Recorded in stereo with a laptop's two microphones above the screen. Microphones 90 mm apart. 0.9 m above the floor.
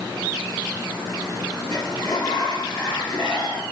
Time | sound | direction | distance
1.7 | a sliding door | 50° left (ahead or behind) | 4 m